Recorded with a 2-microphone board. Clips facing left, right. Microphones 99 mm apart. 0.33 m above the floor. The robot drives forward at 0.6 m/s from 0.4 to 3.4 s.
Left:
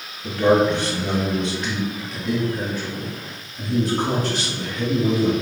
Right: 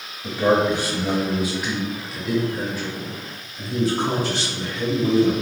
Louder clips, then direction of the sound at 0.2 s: Left 2 dB; 10° right (ahead or behind).